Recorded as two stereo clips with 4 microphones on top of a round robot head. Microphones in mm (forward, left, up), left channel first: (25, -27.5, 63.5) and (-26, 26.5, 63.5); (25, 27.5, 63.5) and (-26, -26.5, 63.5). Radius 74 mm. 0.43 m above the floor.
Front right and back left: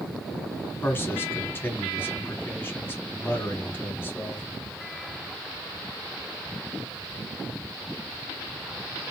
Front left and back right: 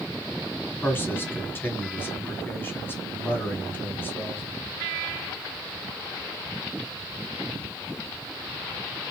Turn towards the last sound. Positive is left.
turn(degrees=0)